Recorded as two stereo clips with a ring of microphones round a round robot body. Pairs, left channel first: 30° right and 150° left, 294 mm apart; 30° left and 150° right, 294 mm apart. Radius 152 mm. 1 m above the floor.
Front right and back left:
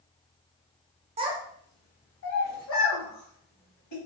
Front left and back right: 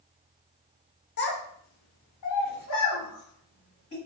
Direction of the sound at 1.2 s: 85° left.